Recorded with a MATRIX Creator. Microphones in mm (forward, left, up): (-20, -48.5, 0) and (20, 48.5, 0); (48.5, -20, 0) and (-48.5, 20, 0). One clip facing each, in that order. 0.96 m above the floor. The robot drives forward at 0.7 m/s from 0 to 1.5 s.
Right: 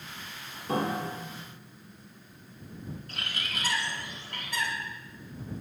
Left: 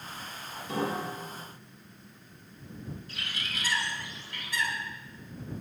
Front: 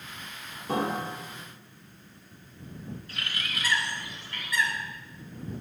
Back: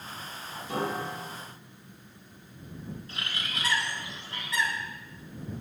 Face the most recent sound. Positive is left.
turn(degrees=-140)